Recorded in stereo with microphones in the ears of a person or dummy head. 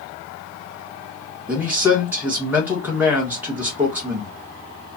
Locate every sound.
1.5 s a man speaking: 10° right (ahead or behind), 1.6 m